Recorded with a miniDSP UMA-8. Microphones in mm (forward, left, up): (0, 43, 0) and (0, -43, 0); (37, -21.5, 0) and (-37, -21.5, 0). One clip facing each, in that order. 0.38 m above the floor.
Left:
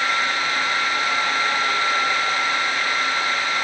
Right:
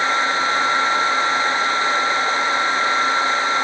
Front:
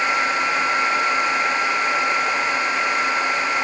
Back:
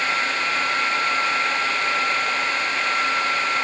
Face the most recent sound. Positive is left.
No sound to turn to.